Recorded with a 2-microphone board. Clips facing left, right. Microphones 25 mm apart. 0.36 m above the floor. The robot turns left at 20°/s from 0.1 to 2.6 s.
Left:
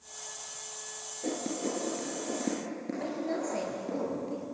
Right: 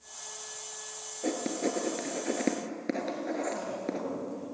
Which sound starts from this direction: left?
A woman speaking, at 3.0 s.